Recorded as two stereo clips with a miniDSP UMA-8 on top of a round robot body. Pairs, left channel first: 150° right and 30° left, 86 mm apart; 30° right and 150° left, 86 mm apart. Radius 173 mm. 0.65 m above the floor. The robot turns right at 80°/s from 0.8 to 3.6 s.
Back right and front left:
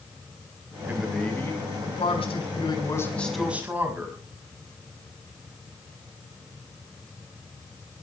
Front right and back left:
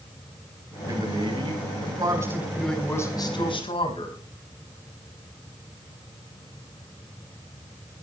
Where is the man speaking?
100° left, 5 m; by 4.2 s 40° right, 5 m.